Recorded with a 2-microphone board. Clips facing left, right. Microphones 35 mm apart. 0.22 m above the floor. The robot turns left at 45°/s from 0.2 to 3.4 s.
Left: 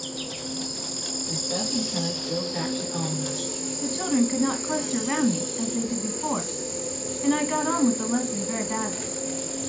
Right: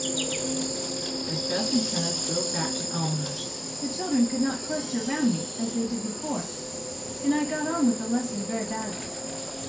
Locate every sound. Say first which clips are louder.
0.0 s an insect: right 4 dB; 105° right, 0.7 m; by 9.7 s 110° left, 0.7 m
1.3 s a woman speaking: right 2 dB; 75° right, 2.5 m; by 3.5 s 170° right, 2.5 m
3.8 s a woman speaking: left 1 dB; 35° left (ahead or behind), 1.3 m